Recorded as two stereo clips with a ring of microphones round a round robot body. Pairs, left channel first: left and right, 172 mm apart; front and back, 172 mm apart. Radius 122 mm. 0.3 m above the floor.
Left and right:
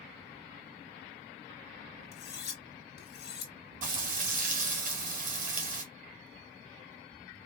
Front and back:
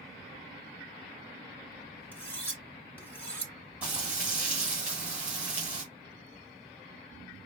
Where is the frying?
100° right, 1.6 m.